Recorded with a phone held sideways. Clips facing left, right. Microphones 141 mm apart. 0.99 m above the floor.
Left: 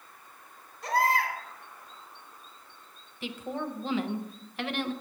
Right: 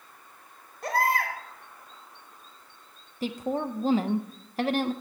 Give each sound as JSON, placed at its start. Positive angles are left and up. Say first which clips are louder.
{"t": 0.8, "sound": "a baby crying", "louder": "even", "side_deg": -55, "distance_m": 1.3}
{"t": 3.2, "sound": "a woman speaking", "louder": "right 5 dB", "side_deg": -40, "distance_m": 0.5}